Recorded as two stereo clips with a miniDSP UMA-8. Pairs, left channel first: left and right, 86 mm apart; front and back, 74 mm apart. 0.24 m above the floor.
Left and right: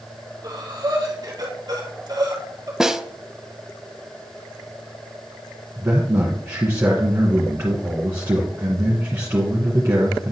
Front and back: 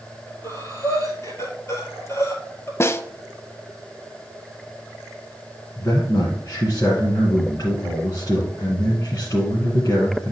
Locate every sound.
0.4 s breathing: 50° right, 2.0 m
2.8 s a snare drum: 10° right, 0.5 m
5.8 s a man speaking: 30° right, 2 m